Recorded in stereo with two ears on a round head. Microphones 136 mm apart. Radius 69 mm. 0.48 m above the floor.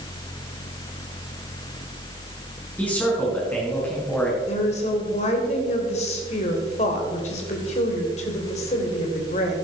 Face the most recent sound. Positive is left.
turn(degrees=45)  # may be behind; listen again after turning